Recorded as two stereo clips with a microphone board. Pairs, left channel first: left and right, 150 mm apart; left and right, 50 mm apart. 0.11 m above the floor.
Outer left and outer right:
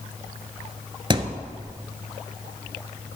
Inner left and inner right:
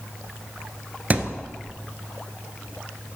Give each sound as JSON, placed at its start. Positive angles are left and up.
{"t": 1.1, "sound": "a thud", "side_deg": -30, "distance_m": 0.8}